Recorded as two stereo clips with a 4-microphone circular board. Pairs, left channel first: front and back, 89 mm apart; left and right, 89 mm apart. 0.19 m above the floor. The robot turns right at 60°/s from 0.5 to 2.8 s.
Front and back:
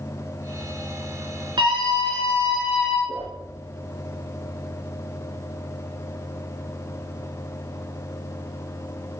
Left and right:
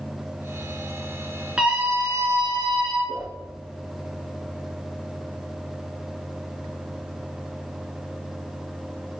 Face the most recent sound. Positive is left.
turn(degrees=-170)